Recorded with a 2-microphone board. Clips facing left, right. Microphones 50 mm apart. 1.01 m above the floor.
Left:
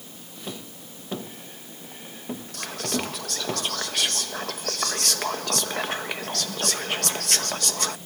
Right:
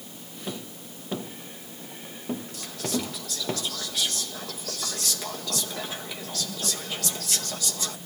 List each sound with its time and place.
2.5 s whispering: 65° left (ahead or behind), 0.8 m